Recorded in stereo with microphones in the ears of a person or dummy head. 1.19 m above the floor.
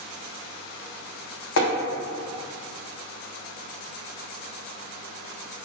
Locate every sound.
1.6 s tapping: 70° left (ahead or behind), 0.5 m